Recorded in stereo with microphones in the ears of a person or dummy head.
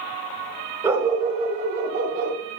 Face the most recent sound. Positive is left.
turn(degrees=-55)  # may be behind; listen again after turning